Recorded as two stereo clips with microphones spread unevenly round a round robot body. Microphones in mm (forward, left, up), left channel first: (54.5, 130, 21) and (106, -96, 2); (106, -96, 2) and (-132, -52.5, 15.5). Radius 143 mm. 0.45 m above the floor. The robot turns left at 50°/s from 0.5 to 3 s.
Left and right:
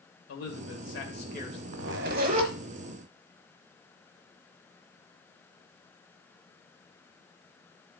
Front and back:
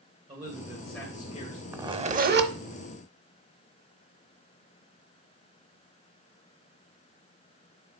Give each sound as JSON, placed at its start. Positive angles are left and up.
{"t": 0.3, "sound": "a man speaking", "azimuth_deg": 95, "distance_m": 2.0}
{"t": 1.7, "sound": "a zipper", "azimuth_deg": -110, "distance_m": 0.9}